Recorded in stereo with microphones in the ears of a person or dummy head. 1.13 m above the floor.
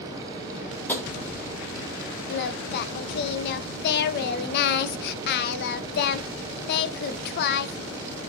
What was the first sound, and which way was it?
Tapping, 5° left (ahead or behind).